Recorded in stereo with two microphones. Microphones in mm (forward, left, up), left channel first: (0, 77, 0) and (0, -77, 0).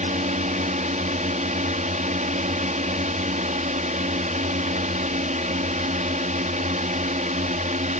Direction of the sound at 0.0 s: 55° right (ahead or behind).